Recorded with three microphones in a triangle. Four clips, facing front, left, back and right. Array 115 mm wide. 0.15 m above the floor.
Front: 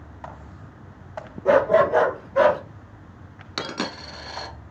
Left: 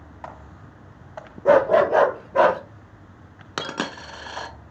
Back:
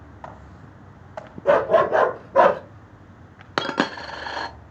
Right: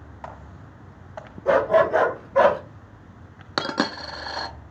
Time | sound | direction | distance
1.4 | a dog barking | 95° left | 1.7 m
3.6 | a dropped coin | 165° right | 0.5 m